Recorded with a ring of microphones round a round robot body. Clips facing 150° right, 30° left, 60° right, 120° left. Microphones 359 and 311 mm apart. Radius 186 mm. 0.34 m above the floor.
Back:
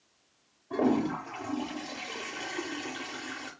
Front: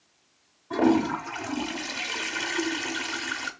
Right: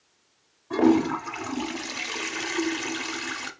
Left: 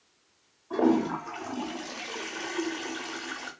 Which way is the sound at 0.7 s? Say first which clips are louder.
Front 5 dB, right 4 dB; 25° right.